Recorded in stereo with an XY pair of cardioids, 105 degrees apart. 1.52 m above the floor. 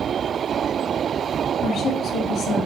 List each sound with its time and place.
1.6 s a woman speaking: 70° left, 2.5 m